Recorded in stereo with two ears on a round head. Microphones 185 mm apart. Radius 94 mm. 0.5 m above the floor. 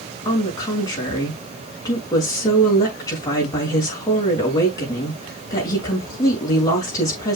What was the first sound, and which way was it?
A woman speaking, 15° left (ahead or behind).